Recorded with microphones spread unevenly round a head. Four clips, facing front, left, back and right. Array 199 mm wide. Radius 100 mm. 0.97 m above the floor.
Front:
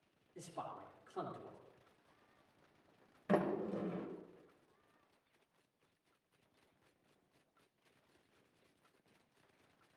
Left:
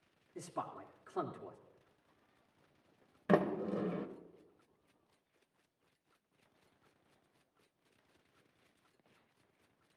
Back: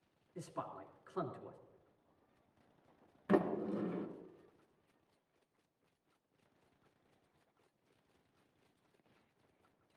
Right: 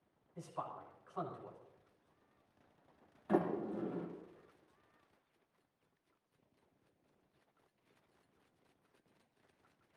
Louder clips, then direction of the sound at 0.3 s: Left 2 dB, back 2 dB; 110° left.